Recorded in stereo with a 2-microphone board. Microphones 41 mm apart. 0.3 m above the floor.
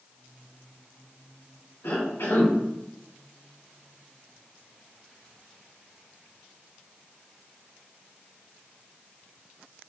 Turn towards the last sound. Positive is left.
turn(degrees=65)  # may be behind; listen again after turning